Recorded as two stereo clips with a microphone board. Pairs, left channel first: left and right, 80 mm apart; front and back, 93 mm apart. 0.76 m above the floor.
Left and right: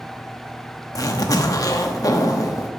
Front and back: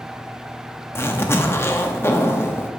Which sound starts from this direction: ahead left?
A zipper, at 0.9 s.